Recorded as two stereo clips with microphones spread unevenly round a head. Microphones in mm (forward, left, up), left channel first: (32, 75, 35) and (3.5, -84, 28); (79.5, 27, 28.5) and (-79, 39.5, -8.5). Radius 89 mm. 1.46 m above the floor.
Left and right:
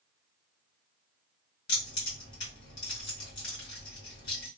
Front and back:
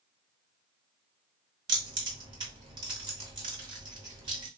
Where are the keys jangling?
110° left, 1.9 m.